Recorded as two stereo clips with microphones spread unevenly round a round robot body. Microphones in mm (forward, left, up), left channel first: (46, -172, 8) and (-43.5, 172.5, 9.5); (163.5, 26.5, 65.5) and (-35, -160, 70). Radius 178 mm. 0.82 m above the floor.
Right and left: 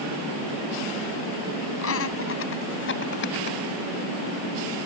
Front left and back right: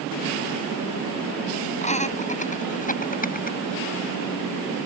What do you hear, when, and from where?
1.8 s laughter: 20° right; by 3.6 s 15° right